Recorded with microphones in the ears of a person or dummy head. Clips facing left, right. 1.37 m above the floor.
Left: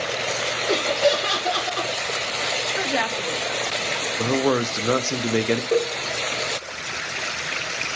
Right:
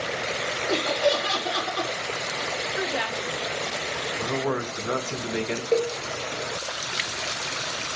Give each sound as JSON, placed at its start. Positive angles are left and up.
{"t": 0.7, "sound": "laughter", "side_deg": 55, "distance_m": 1.5}
{"t": 2.8, "sound": "a woman speaking", "side_deg": 75, "distance_m": 1.3}
{"t": 4.2, "sound": "a man speaking", "side_deg": 60, "distance_m": 0.7}
{"t": 5.7, "sound": "a cowbell", "side_deg": 80, "distance_m": 3.0}